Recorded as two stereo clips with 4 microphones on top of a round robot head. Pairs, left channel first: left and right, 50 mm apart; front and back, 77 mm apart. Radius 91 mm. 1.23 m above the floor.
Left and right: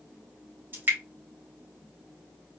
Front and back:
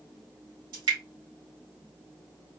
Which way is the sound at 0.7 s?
140° right.